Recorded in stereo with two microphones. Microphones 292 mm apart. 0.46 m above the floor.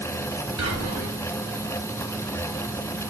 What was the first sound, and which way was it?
Whispering, 65° right (ahead or behind).